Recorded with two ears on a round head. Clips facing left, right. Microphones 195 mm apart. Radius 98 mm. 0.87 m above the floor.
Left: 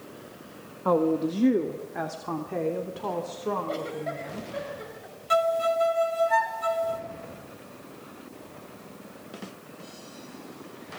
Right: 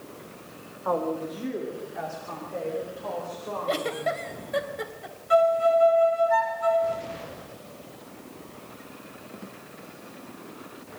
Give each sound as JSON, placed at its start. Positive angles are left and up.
{"t": 0.8, "sound": "a woman speaking", "side_deg": 45, "distance_m": 1.8}
{"t": 3.7, "sound": "a giggle", "side_deg": -70, "distance_m": 3.0}
{"t": 5.3, "sound": "a violin", "side_deg": 60, "distance_m": 3.0}